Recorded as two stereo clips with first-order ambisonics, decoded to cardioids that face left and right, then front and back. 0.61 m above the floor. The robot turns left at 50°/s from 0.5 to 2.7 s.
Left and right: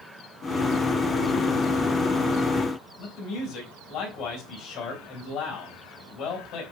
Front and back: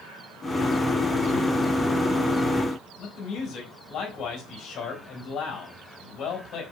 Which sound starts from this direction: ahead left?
A man speaking, at 3.0 s.